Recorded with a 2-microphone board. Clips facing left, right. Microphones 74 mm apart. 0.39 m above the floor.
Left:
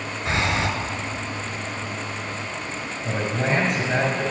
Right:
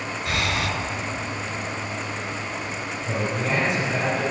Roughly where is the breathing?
Left.